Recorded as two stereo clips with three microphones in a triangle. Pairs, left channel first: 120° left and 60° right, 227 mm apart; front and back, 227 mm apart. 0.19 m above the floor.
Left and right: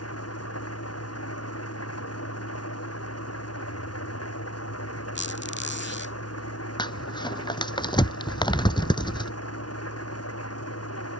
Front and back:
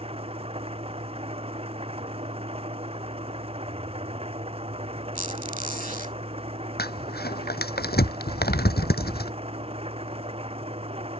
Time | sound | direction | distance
0.0 | an engine running | 115° left | ?
5.2 | a squeak | 135° left | ?
6.8 | crumpling | 50° left | ?